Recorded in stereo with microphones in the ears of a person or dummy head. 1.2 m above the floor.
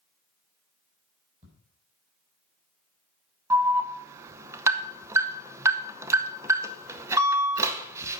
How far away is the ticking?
About 3.5 m.